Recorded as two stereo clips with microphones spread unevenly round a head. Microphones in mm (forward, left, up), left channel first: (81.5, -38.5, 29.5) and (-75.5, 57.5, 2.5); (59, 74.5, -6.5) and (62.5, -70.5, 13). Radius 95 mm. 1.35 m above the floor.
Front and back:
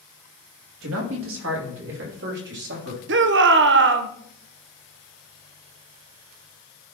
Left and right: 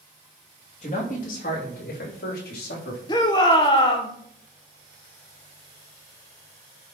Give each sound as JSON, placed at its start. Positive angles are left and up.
{"t": 0.8, "sound": "a man speaking", "azimuth_deg": 145, "distance_m": 2.5}
{"t": 3.1, "sound": "a shout", "azimuth_deg": 155, "distance_m": 0.9}